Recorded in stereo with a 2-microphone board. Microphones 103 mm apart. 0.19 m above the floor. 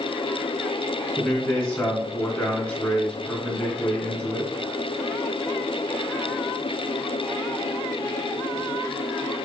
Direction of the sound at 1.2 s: 10° left (ahead or behind).